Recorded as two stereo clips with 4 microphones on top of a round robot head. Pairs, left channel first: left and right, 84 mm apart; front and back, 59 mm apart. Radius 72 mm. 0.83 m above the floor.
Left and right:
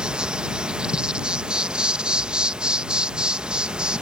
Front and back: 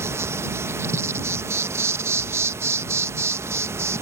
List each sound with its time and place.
0.0 s an insect: 165° right